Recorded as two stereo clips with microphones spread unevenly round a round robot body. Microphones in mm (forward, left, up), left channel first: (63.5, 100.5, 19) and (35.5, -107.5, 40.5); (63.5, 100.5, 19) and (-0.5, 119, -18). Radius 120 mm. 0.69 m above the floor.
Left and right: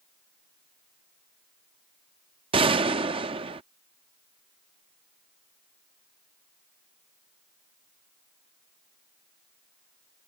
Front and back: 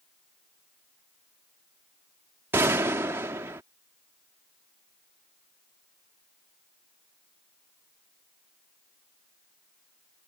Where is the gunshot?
165° right.